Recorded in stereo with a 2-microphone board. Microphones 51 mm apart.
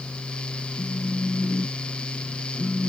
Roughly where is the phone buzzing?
Left.